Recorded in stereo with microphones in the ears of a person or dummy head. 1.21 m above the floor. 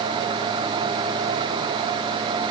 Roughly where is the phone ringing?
I don't hear a phone ringing.